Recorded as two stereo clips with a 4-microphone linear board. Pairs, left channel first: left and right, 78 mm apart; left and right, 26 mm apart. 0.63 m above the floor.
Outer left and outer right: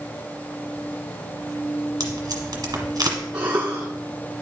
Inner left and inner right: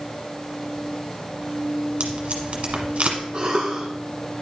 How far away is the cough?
About 1.2 m.